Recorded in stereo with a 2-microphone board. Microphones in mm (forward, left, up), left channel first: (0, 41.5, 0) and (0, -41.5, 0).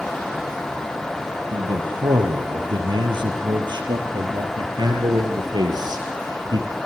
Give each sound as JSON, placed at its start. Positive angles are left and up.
{"t": 1.5, "sound": "a man speaking", "side_deg": -80, "distance_m": 7.5}